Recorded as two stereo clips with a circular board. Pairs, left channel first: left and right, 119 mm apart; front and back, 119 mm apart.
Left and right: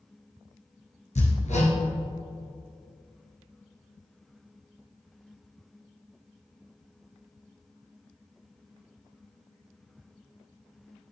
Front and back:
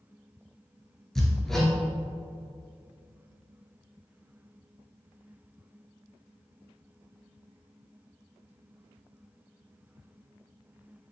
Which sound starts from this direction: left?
Hammering, at 1.1 s.